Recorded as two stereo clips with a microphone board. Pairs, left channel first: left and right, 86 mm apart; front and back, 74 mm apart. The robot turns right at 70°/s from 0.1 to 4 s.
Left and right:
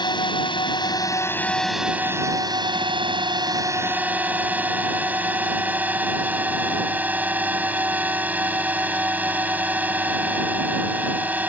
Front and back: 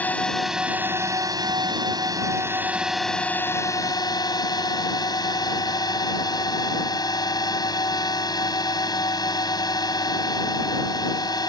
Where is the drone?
65° left; by 11.5 s 20° right.